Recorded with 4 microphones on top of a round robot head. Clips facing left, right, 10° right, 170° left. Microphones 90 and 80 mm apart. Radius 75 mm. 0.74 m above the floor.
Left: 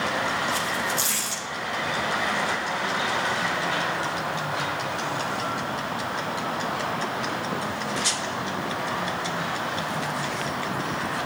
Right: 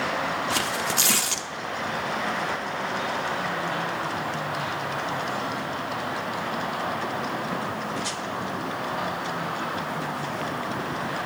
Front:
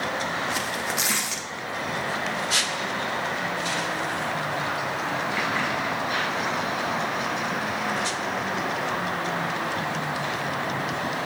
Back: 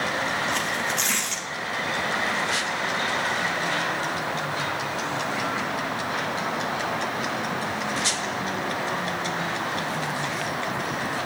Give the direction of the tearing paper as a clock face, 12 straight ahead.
3 o'clock.